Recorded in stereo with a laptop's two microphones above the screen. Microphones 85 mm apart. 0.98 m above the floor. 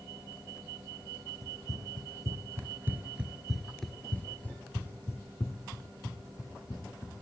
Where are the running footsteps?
45° right (ahead or behind), 1.5 m; by 7.1 s 45° left (ahead or behind), 2.5 m.